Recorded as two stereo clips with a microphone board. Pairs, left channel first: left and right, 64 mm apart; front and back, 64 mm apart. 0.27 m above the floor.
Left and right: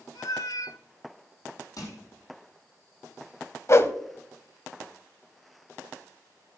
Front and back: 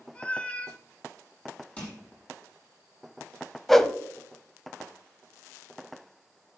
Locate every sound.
0.1 s a cat meowing: 70° left, 0.7 m
1.8 s crushing: 65° left, 6.5 m
3.7 s a whoosh: 85° left, 0.7 m